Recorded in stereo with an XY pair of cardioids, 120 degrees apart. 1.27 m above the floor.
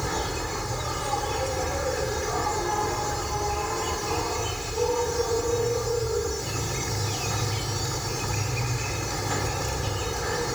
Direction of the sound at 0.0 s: Straight ahead.